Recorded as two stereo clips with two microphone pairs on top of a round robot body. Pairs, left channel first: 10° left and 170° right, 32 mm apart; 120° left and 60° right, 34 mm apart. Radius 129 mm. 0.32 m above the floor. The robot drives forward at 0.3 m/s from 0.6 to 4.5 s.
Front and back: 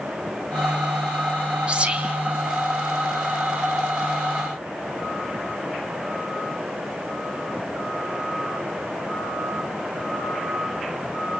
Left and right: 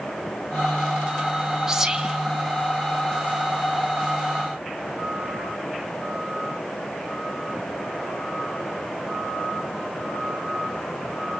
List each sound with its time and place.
1.7 s whispering: 130° right, 2 m